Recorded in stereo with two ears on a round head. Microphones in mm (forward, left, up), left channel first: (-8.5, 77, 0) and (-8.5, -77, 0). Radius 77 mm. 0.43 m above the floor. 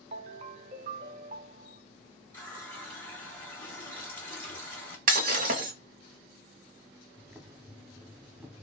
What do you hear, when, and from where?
0.1 s a ringtone: 40° right (ahead or behind), 0.5 m
2.3 s a running tap: 10° left (ahead or behind), 1.3 m
5.1 s breaking glass: 50° right (ahead or behind), 0.8 m
7.2 s boiling: 10° right (ahead or behind), 0.6 m